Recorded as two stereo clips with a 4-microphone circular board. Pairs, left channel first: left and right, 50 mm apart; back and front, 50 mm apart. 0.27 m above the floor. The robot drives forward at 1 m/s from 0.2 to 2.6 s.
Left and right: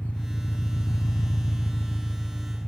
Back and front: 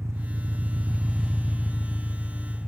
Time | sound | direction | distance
0.0 | an engine running | 25° left | 1.1 m